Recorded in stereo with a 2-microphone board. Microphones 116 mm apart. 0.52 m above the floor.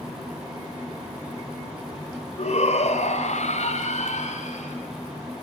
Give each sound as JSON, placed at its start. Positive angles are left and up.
{"t": 2.4, "sound": "a shout", "side_deg": 60, "distance_m": 2.5}